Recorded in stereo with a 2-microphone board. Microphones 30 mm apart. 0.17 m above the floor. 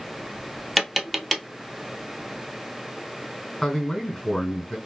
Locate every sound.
0.8 s tapping: centre (ahead or behind), 0.7 m
3.6 s a man speaking: 20° left (ahead or behind), 1.7 m